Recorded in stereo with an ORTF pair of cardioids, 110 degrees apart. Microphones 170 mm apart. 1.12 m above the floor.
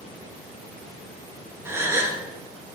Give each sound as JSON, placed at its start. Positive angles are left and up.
{"t": 1.6, "sound": "a gasp", "azimuth_deg": -15, "distance_m": 1.1}